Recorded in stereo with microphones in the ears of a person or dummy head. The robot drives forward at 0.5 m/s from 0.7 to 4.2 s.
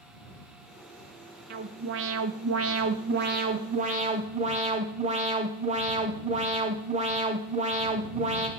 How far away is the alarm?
About 0.8 m.